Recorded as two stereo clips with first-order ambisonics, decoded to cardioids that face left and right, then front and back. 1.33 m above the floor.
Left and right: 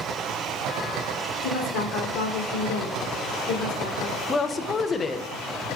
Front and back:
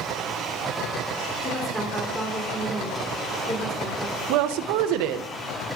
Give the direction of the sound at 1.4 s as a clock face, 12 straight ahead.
9 o'clock.